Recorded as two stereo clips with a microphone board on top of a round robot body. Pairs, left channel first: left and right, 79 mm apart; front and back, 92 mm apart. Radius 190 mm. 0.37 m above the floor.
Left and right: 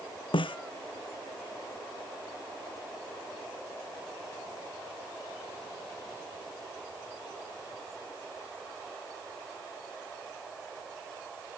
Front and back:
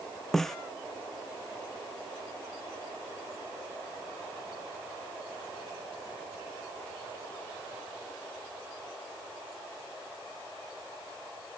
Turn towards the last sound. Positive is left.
turn(degrees=85)